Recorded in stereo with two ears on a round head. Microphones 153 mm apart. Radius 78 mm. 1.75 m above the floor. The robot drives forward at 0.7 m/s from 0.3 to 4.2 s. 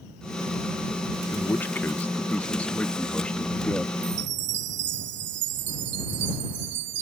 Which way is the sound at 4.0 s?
65° right (ahead or behind).